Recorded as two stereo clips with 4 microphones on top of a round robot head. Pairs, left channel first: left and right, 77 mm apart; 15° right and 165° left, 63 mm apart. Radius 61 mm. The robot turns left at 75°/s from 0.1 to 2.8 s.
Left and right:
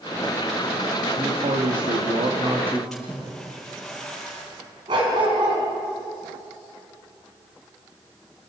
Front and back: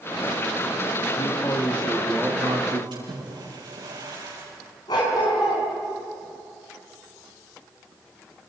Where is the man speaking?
40° right, 2 m; by 2.8 s 160° right, 2 m.